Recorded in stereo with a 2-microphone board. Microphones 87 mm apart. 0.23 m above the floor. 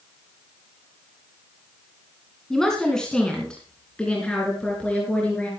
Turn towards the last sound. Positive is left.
turn(degrees=15)  # may be behind; listen again after turning